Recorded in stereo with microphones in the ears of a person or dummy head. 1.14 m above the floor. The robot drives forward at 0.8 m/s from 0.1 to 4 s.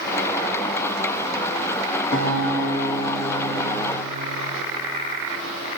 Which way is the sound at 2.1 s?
85° left.